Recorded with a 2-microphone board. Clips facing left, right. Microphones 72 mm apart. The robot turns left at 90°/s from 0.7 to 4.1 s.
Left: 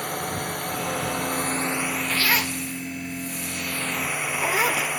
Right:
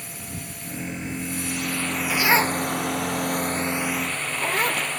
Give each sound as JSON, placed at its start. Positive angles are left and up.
{"t": 0.0, "sound": "a drone", "azimuth_deg": 115}
{"t": 2.1, "sound": "a zipper", "side_deg": -5}